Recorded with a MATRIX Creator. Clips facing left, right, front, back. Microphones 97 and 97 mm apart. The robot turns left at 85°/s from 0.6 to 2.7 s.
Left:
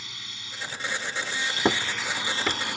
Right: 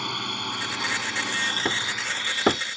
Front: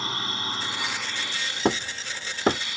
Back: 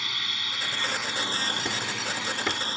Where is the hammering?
25° left; by 2.6 s 55° right.